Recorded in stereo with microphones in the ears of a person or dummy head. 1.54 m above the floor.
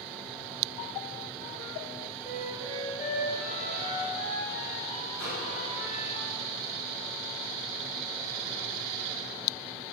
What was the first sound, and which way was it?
A flute, 40° left (ahead or behind).